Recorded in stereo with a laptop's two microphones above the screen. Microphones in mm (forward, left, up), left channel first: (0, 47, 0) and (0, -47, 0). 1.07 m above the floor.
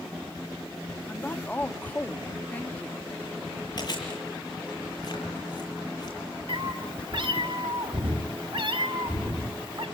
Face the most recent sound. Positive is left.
turn(degrees=-60)  # may be behind; listen again after turning